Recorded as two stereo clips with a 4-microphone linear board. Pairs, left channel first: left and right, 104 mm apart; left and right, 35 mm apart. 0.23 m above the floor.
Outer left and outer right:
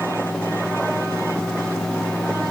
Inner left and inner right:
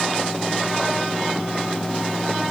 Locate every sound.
Only background noise.